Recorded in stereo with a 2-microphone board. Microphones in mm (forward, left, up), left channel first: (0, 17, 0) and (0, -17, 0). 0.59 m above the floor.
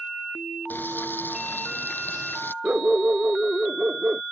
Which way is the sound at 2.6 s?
45° right (ahead or behind).